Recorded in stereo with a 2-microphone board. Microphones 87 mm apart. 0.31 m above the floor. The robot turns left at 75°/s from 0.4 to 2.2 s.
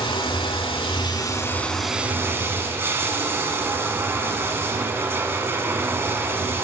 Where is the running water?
110° left, 0.8 m; by 6.7 s 25° right, 0.8 m.